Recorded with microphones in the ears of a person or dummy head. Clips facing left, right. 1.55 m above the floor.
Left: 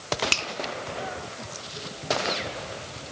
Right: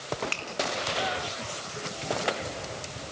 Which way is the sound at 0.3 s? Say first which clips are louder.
Left 4 dB; 60° left (ahead or behind).